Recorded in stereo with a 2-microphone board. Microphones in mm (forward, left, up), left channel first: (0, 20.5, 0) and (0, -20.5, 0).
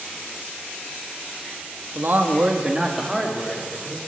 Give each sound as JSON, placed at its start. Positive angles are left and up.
{"t": 1.9, "sound": "a man speaking", "side_deg": -65, "distance_m": 1.4}